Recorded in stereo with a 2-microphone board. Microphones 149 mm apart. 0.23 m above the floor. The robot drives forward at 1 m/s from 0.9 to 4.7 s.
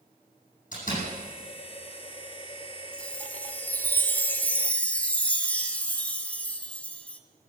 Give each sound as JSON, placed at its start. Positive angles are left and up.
{"t": 0.7, "sound": "a door slam", "side_deg": 65, "distance_m": 9.5}
{"t": 2.9, "sound": "a chime", "side_deg": 10, "distance_m": 1.3}